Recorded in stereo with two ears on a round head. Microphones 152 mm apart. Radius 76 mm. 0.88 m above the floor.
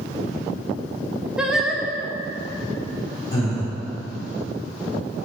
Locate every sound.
1.4 s singing: 5° right (ahead or behind), 0.6 m
3.3 s breathing: 20° left (ahead or behind), 1.9 m